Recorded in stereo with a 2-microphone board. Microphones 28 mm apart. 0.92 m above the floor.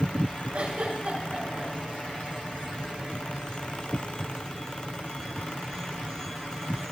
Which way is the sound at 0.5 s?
50° right (ahead or behind).